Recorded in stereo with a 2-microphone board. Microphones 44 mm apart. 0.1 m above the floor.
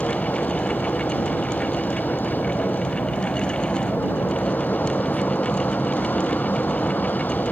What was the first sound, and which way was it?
An aircraft, 45° left (ahead or behind).